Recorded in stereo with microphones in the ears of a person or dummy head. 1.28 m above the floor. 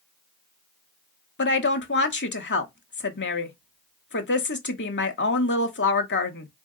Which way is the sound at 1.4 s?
55° left (ahead or behind).